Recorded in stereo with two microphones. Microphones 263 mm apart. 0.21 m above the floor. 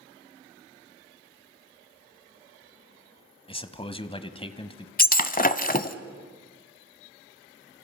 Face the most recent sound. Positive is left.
turn(degrees=35)  # may be behind; listen again after turning